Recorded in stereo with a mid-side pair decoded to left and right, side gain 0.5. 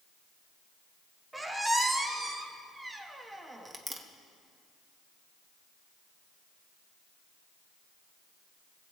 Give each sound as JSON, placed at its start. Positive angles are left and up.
{"t": 1.3, "sound": "a squeak", "azimuth_deg": -15, "distance_m": 1.3}